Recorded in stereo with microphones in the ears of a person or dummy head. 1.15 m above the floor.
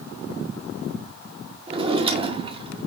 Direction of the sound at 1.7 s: 25° right (ahead or behind).